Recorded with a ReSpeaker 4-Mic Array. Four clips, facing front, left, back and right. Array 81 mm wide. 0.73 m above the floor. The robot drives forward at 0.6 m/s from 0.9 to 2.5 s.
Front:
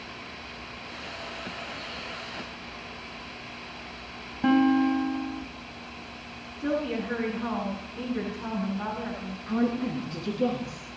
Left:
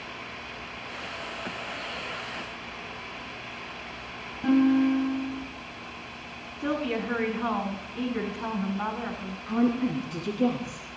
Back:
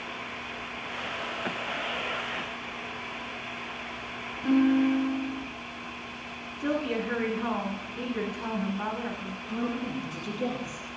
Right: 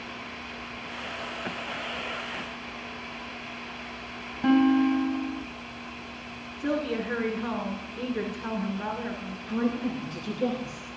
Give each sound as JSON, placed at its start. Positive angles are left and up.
{"t": 4.4, "sound": "a guitar", "azimuth_deg": -15, "distance_m": 4.5}
{"t": 6.6, "sound": "a woman speaking", "azimuth_deg": 95, "distance_m": 8.0}
{"t": 9.5, "sound": "a woman speaking", "azimuth_deg": 65, "distance_m": 8.5}